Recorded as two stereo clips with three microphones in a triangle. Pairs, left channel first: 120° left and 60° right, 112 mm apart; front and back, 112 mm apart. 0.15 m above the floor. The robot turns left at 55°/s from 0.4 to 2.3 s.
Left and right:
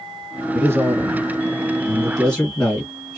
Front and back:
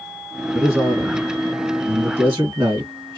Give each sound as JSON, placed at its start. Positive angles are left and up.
{"t": 0.5, "sound": "a man speaking", "azimuth_deg": -85, "distance_m": 1.5}